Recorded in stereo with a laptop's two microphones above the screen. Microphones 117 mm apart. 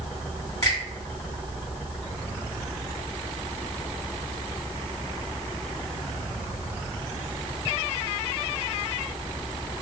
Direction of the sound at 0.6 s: 25° left (ahead or behind).